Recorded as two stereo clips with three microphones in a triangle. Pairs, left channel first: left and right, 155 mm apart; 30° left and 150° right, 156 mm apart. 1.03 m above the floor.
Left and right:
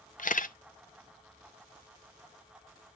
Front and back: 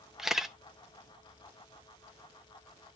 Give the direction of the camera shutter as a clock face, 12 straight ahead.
8 o'clock.